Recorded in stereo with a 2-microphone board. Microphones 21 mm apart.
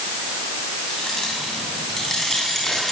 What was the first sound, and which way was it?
Keys jangling, 20° left (ahead or behind).